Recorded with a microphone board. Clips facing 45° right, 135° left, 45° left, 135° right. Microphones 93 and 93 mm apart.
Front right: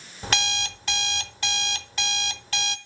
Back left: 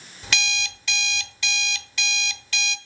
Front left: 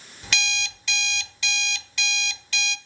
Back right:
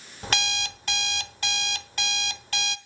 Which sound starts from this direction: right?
An alarm clock, at 0.2 s.